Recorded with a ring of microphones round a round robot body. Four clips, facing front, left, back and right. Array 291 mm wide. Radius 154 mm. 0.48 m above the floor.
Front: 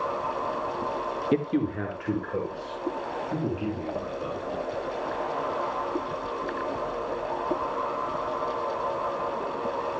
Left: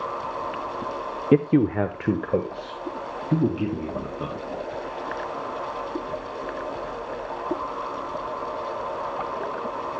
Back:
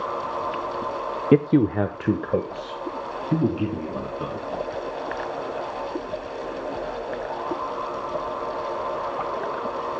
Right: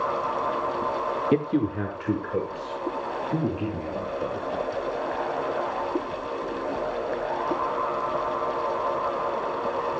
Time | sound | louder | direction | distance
1.3 | a man speaking | left 7 dB, back 9 dB | 150° left | 0.8 m